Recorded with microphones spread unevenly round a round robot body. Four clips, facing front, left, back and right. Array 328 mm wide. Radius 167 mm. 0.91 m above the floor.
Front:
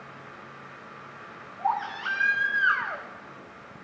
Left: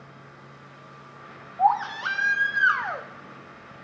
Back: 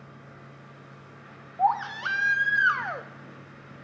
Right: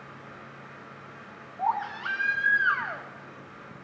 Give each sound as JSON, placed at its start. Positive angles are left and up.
{"t": 1.6, "sound": "a baby crying", "azimuth_deg": 165, "distance_m": 0.5}